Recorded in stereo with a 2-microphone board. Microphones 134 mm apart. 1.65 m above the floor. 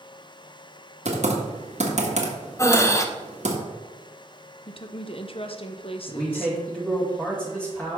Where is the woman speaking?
45° left (ahead or behind), 0.8 m.